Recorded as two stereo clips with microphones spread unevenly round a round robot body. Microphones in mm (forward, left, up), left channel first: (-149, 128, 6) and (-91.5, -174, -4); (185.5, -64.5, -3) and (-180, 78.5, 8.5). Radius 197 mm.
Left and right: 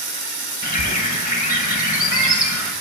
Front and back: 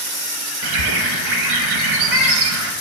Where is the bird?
160° left, 1.0 m.